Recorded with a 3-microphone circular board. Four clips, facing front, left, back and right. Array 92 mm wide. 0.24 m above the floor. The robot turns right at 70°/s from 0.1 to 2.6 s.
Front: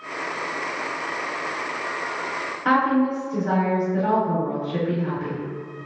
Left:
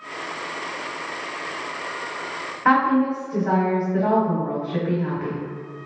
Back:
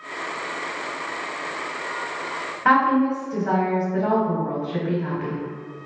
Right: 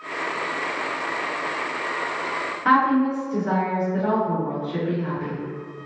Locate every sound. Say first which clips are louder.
2.6 s a woman speaking: left 1 dB, back 2 dB; 135° left, 1.3 m